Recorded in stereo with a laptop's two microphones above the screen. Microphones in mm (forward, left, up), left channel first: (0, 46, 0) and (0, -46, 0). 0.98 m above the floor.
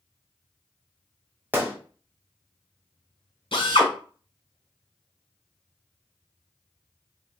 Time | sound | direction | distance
1.5 | a gunshot | 20° right (ahead or behind) | 0.6 m
3.5 | a drill | 70° left (ahead or behind) | 1.3 m